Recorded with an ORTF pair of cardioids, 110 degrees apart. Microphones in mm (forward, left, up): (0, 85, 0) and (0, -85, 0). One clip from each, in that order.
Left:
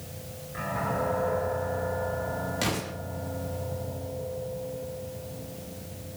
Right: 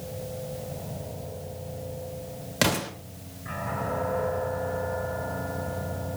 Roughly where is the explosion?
Ahead right.